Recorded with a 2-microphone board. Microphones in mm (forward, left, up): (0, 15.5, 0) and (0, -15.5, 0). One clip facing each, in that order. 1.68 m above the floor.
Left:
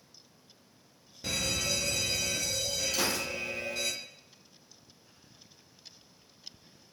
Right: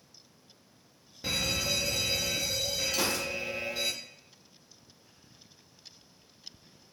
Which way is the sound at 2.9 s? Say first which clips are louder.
Even; 5° right (ahead or behind).